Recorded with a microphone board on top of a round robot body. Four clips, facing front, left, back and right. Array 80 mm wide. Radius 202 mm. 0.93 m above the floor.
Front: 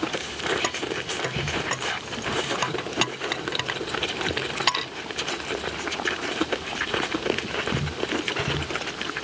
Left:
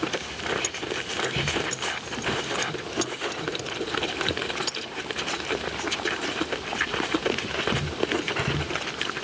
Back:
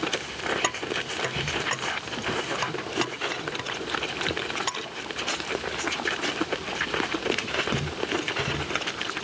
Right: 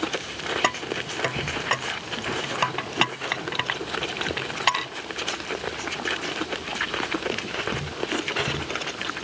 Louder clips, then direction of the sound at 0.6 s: Right 5 dB, front 1 dB; 95° right.